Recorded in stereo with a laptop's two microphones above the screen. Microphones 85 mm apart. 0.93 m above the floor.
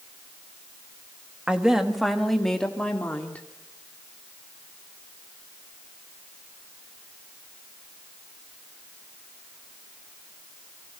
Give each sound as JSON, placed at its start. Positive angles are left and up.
{"t": 1.5, "sound": "a woman speaking", "side_deg": -10, "distance_m": 1.7}